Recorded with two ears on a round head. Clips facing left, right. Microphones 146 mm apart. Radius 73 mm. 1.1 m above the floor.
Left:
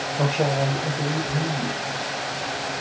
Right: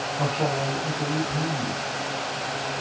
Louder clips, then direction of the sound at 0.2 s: Left 4 dB; 35° left (ahead or behind).